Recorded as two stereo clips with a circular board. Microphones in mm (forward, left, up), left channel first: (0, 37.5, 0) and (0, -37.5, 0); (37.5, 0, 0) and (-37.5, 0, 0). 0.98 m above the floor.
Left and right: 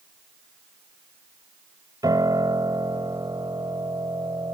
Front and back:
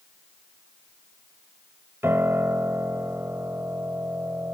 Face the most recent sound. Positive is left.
turn(degrees=-120)